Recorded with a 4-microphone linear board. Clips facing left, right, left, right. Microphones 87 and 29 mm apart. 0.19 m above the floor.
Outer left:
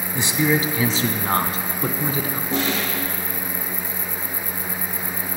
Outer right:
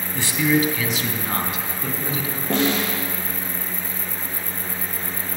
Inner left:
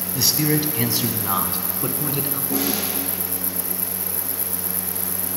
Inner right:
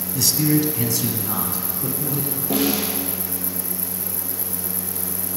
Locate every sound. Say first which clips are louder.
0.1 s a man speaking: outer right 1 dB, inner right 1 dB; 20° left (ahead or behind), 1.0 m; by 2.4 s 40° left (ahead or behind), 1.6 m
2.5 s a snare drum: outer right 4 dB, inner right 4 dB; 65° right (ahead or behind), 4.5 m